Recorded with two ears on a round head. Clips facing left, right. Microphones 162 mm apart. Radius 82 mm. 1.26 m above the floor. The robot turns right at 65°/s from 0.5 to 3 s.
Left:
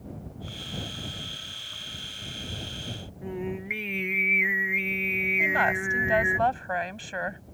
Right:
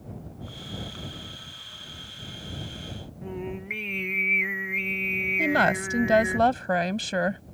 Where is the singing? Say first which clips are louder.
Left 2 dB; 5° left (ahead or behind).